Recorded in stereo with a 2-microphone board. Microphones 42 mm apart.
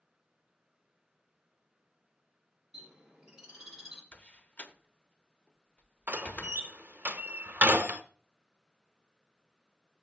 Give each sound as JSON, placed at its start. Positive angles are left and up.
{"t": 2.7, "sound": "a bird", "side_deg": -5, "distance_m": 3.5}
{"t": 4.1, "sound": "a door slam", "side_deg": 35, "distance_m": 0.8}
{"t": 6.1, "sound": "a door slam", "side_deg": -45, "distance_m": 1.0}